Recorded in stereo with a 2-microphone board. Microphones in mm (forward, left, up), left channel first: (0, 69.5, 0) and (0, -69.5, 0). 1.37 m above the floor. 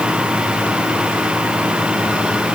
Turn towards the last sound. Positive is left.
No sound to turn to.